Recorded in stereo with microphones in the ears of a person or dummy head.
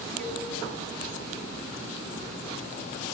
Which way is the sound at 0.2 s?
45° right (ahead or behind).